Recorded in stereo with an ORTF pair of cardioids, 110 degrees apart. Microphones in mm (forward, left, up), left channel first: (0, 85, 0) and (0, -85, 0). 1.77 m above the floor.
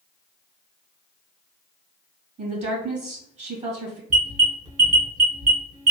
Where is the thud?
I don't hear a thud.